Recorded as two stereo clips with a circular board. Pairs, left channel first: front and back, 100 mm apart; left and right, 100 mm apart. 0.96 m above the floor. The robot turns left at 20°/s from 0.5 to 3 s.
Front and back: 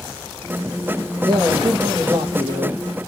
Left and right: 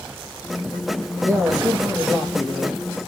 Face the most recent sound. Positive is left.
turn(degrees=180)